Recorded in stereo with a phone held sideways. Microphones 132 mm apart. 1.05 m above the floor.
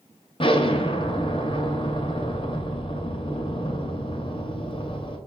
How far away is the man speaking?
I don't hear a man speaking.